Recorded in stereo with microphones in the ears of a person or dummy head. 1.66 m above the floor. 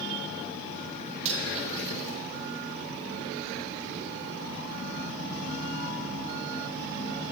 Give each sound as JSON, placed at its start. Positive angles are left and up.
{"t": 1.2, "sound": "cutlery clinking", "side_deg": -45, "distance_m": 3.5}